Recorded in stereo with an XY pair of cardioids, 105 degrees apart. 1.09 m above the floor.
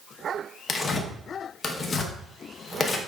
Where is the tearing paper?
40° left, 0.8 m.